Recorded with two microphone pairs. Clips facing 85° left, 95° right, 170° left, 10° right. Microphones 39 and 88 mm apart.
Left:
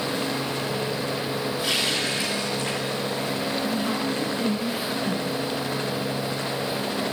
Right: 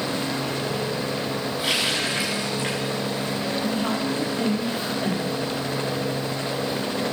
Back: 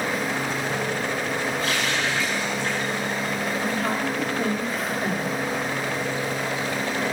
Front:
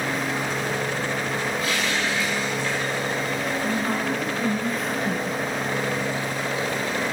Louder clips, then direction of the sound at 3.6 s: Right 1 dB, even; 125° right.